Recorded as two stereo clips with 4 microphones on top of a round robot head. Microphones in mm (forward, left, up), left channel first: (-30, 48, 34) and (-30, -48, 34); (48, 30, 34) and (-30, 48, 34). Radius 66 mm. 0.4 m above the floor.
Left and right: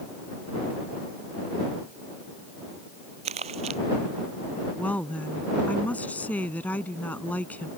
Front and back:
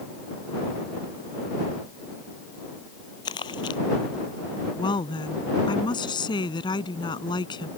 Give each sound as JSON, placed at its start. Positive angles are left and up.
{"t": 3.2, "sound": "crumpling", "azimuth_deg": -60}
{"t": 4.8, "sound": "a woman speaking", "azimuth_deg": 15}